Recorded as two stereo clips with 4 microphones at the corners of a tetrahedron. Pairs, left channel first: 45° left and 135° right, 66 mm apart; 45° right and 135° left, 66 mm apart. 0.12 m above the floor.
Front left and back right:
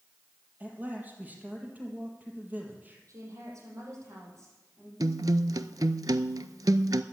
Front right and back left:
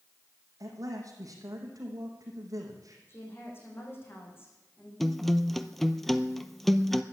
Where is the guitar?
135° right, 0.6 m.